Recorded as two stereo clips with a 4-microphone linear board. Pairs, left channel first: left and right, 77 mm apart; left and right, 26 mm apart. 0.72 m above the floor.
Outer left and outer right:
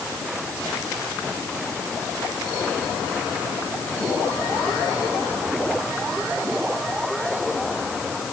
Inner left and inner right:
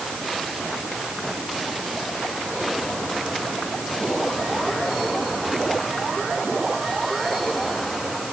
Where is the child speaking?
No child speaking in this recording.